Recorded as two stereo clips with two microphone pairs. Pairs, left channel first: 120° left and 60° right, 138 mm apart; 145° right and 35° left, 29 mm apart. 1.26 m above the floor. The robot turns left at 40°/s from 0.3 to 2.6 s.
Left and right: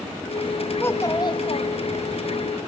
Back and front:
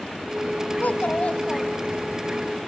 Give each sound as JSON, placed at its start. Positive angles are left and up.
{"t": 0.8, "sound": "a child speaking", "azimuth_deg": -170, "distance_m": 1.2}